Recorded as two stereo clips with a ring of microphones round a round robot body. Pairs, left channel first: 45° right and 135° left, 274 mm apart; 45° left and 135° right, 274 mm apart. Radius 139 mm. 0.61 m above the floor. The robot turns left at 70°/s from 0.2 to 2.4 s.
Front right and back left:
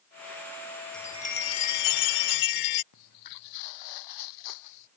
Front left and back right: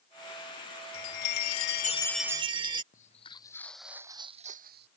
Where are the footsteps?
20° right; by 4.9 s 80° right.